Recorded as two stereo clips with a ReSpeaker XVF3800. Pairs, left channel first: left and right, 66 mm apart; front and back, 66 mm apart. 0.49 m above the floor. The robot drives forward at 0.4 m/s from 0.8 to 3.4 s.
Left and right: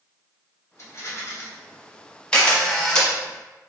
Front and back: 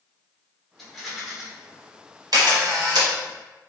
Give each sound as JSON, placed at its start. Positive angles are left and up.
{"t": 0.8, "sound": "a rattle", "azimuth_deg": 85, "distance_m": 1.3}
{"t": 2.3, "sound": "a camera shutter", "azimuth_deg": 165, "distance_m": 1.1}